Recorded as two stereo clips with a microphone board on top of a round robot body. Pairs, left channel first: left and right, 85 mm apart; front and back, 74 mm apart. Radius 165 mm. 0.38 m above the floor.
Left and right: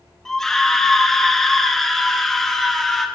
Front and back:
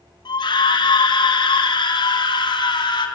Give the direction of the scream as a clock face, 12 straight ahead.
12 o'clock.